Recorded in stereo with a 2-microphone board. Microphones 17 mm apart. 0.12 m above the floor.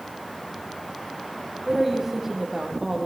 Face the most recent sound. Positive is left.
turn(degrees=-20)  # may be behind; listen again after turning